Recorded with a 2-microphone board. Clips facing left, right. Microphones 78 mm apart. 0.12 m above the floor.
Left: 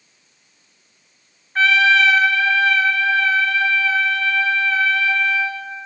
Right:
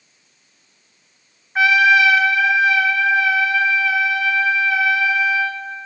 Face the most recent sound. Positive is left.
turn(degrees=-15)  # may be behind; listen again after turning